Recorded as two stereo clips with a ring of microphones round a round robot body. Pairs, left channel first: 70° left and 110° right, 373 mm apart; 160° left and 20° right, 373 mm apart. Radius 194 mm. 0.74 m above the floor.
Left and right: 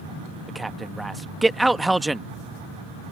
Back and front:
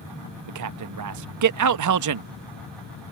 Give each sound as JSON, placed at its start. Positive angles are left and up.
{"t": 0.5, "sound": "a man speaking", "azimuth_deg": -25}